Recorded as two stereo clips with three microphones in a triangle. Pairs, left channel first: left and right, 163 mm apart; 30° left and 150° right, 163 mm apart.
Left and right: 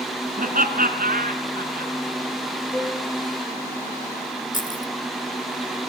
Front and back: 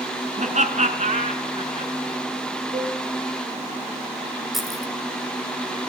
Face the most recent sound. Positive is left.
turn(degrees=120)